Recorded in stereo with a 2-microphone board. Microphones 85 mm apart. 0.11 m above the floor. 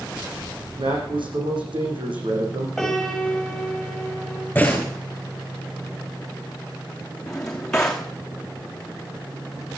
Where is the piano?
Centre (ahead or behind), 7 m.